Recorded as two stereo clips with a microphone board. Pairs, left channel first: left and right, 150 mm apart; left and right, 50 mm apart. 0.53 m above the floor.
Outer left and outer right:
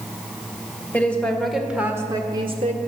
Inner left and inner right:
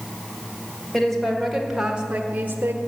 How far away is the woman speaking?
About 2 m.